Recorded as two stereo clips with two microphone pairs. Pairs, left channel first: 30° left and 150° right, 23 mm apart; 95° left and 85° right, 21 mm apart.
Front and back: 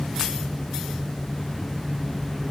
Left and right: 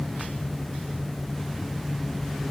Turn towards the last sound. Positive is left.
No sound to turn to.